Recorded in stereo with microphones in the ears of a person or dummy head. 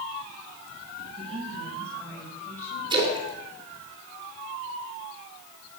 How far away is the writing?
No writing in this recording.